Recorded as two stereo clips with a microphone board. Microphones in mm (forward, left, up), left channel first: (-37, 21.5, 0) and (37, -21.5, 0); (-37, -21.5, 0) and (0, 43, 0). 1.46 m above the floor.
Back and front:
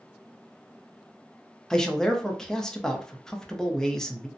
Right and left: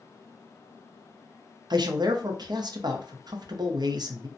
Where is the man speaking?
65° left, 0.5 m.